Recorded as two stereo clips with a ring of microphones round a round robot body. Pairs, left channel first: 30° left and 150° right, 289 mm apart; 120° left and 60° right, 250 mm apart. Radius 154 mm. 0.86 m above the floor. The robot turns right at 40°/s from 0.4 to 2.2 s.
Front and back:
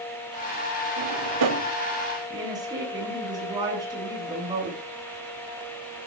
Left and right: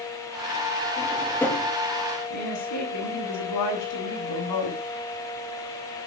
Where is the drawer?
175° right, 2 m; by 1.7 s 145° right, 2 m.